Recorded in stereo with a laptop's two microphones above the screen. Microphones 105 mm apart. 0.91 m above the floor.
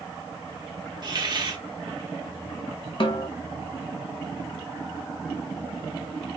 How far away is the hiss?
About 1.0 m.